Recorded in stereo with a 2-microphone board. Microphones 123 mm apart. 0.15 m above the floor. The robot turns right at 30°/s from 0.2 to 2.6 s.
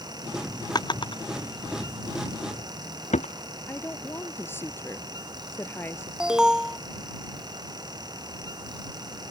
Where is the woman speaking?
20° left (ahead or behind).